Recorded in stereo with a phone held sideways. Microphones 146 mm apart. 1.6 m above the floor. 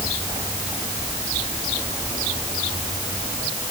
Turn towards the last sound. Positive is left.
No sound to turn to.